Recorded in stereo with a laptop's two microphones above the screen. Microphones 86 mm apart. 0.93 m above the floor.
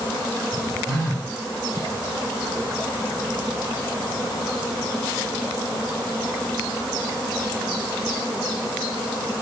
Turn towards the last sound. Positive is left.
turn(degrees=-40)  # may be behind; listen again after turning